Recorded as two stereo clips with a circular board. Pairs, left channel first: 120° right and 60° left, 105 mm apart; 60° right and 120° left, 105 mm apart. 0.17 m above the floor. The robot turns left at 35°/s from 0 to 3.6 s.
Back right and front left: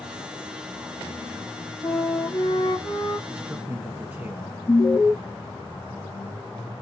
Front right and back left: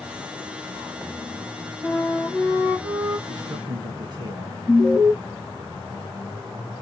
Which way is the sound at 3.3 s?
145° left.